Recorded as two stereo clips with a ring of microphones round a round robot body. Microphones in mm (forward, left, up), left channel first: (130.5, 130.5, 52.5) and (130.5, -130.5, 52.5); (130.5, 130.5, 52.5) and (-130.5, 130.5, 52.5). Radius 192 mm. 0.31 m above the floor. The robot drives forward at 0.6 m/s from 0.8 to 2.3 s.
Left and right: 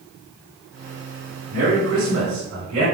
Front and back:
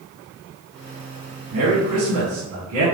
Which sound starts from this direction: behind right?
A man speaking, at 1.5 s.